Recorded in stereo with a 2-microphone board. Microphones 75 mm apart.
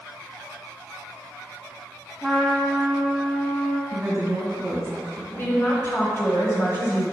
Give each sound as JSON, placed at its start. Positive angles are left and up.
{"t": 2.2, "sound": "a trumpet", "side_deg": 10, "distance_m": 1.3}
{"t": 3.9, "sound": "a woman speaking", "side_deg": -35, "distance_m": 1.6}
{"t": 5.4, "sound": "a woman speaking", "side_deg": 35, "distance_m": 1.8}